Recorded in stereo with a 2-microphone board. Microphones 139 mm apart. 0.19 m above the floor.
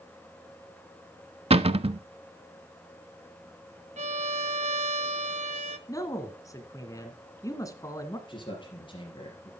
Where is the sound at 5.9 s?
25° left (ahead or behind), 1.9 m.